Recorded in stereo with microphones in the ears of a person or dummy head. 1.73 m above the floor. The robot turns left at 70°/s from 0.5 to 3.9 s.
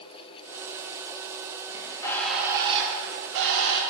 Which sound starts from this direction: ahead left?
A bird, at 1.7 s.